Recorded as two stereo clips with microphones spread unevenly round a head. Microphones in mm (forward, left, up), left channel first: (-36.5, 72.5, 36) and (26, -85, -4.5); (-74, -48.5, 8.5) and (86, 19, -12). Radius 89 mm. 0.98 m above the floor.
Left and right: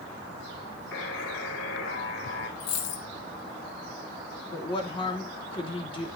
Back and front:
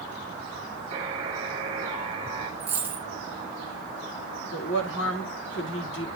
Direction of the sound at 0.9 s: 85° left.